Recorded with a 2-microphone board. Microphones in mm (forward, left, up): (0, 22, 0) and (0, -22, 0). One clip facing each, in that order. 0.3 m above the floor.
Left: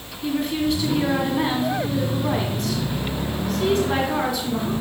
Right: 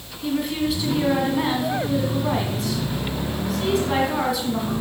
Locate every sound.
0.2 s a woman speaking: 5° right (ahead or behind), 2.5 m